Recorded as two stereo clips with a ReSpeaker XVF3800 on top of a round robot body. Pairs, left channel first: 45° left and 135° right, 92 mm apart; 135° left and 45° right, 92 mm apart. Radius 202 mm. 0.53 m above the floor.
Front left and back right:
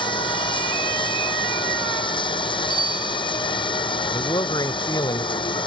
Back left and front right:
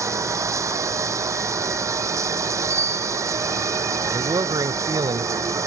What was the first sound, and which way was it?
Running water, 15° left.